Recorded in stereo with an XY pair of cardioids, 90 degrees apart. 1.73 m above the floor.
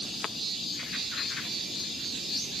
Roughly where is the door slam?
I don't hear a door slam.